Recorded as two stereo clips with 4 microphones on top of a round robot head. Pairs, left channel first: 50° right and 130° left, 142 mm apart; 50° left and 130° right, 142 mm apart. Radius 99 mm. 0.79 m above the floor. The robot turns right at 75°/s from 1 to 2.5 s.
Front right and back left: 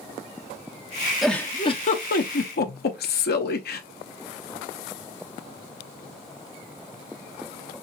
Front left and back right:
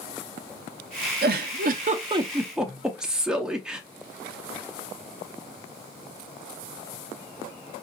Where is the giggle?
140° right, 0.8 m; by 3.8 s 45° right, 0.8 m.